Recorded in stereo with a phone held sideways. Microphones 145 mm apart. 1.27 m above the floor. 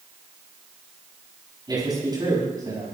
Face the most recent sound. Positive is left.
turn(degrees=-25)  # may be behind; listen again after turning